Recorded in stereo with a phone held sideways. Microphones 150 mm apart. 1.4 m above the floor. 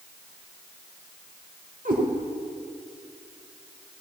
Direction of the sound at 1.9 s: 70° right (ahead or behind).